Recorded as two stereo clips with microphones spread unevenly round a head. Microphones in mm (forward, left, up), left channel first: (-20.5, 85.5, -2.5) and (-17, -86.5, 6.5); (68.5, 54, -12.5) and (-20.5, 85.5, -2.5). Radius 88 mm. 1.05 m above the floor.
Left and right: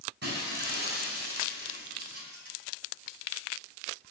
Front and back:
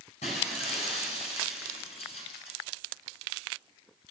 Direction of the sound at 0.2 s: 55° right.